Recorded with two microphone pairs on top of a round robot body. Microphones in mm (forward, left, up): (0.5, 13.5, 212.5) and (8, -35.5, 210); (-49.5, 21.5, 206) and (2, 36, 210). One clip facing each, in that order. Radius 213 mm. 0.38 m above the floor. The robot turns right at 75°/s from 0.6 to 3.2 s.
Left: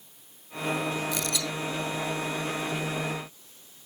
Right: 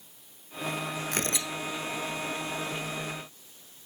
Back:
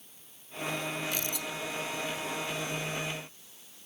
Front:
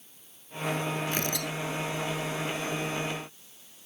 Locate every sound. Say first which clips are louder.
1.1 s tearing paper: left 1 dB, front 4 dB; 35° right; by 1.5 s 5° right